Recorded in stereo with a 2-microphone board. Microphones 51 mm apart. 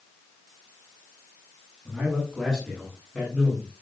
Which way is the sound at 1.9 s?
10° right (ahead or behind).